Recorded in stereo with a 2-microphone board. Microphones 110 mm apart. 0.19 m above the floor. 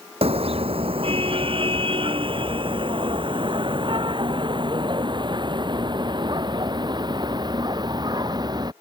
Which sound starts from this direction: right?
A car horn, at 0.2 s.